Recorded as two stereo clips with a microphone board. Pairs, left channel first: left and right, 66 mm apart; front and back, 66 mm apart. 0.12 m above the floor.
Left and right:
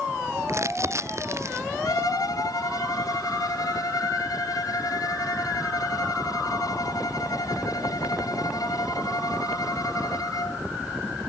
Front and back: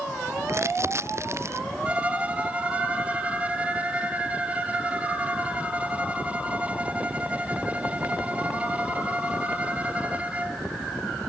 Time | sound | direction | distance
0.5 | crumpling | 135° right | ?
1.9 | a violin | 110° left | ?